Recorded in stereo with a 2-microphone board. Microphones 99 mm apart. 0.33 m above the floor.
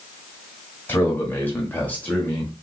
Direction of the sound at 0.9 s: 20° left (ahead or behind).